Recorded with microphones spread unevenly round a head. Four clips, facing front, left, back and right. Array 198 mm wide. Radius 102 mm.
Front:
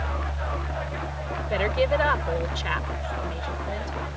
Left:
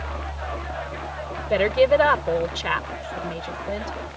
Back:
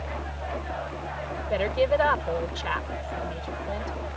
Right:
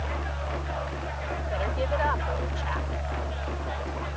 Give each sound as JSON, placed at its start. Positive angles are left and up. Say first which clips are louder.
{"t": 1.5, "sound": "a woman speaking", "louder": "left 13 dB, even", "azimuth_deg": 80}